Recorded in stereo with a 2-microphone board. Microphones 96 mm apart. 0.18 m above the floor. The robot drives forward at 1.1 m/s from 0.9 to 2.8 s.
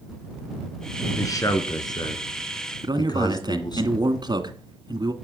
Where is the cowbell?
I don't hear a cowbell.